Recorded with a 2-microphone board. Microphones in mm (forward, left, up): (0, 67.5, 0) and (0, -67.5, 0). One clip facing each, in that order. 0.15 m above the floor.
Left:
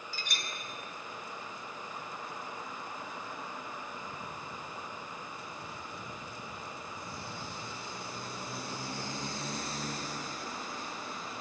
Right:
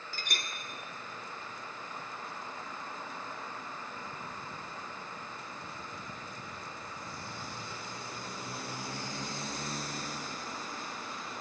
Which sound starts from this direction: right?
A clink, at 0.1 s.